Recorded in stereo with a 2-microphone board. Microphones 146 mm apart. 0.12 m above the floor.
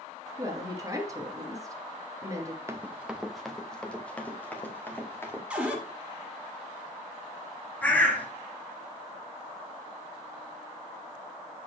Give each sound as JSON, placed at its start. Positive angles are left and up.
{"t": 0.4, "sound": "a woman speaking", "side_deg": -25, "distance_m": 2.5}
{"t": 2.7, "sound": "running footsteps", "side_deg": -20, "distance_m": 0.8}
{"t": 5.5, "sound": "a cupboard door", "side_deg": -10, "distance_m": 1.8}
{"t": 7.8, "sound": "a bird", "side_deg": 10, "distance_m": 1.9}